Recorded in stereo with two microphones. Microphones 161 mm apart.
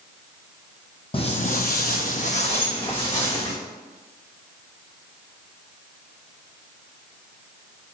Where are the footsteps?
35° left (ahead or behind), 0.6 m; by 3.5 s 25° left (ahead or behind), 1.5 m.